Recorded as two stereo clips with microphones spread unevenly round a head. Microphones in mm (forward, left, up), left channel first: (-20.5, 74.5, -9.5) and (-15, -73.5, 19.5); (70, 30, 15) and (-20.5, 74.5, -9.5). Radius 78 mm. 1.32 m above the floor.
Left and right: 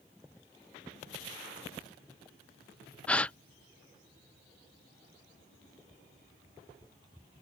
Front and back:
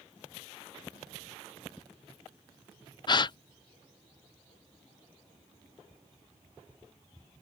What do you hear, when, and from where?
3.1 s a gasp: 20° left